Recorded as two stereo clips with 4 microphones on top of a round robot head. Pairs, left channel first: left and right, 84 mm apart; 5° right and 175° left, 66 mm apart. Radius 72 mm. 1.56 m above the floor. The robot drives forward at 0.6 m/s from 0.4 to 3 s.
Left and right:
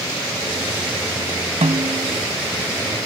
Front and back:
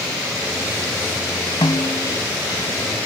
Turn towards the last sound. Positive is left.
turn(degrees=-65)